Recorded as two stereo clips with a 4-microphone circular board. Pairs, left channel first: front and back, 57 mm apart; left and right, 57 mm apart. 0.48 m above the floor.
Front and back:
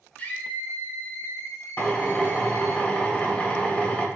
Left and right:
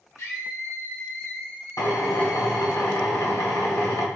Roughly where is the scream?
Ahead left.